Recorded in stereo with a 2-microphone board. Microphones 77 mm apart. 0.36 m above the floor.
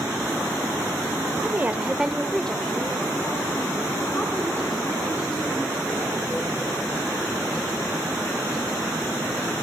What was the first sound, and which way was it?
A woman speaking, 25° right (ahead or behind).